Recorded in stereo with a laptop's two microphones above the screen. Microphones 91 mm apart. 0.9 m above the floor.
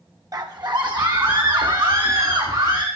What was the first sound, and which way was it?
A scream, 45° right (ahead or behind).